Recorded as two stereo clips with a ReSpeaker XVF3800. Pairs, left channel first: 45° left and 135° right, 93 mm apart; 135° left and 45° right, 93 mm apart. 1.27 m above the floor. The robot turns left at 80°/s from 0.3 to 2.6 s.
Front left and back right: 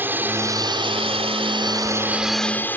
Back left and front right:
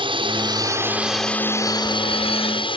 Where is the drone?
65° right; by 2.8 s 115° left.